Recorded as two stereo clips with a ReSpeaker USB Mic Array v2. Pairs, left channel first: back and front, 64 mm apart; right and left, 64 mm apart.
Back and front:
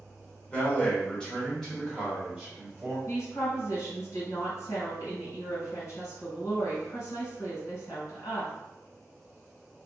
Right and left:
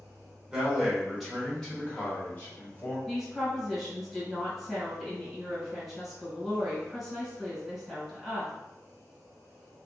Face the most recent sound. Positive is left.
turn(degrees=180)